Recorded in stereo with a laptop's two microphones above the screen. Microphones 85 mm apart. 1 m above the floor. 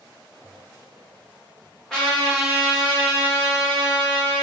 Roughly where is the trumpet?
Centre.